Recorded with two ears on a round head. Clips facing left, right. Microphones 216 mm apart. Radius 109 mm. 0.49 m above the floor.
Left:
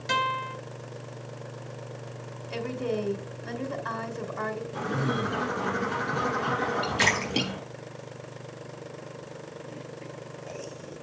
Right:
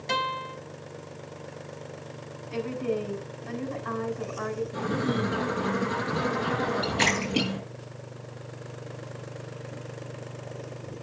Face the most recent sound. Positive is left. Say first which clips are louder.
# right 2 dB
turn(degrees=20)  # may be behind; listen again after turning